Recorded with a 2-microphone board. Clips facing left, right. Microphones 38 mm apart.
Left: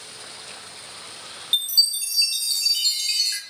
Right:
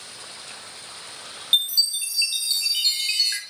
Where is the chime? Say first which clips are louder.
Right 1 dB; 25° right (ahead or behind), 0.6 m.